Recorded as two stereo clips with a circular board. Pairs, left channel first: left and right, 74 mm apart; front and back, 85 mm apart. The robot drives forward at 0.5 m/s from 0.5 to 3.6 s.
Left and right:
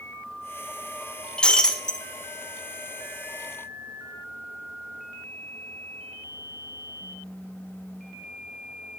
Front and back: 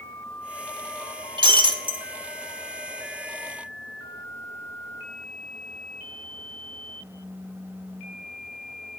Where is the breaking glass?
165° left, 0.7 m; by 2.0 s 170° left, 1.1 m.